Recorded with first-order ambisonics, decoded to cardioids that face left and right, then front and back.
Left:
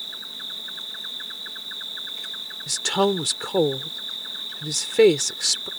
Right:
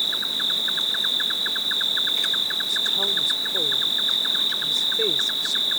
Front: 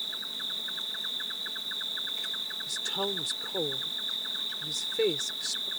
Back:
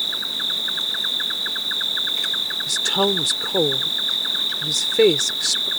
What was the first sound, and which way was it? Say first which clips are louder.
An insect: right 10 dB, back 11 dB; 140° right.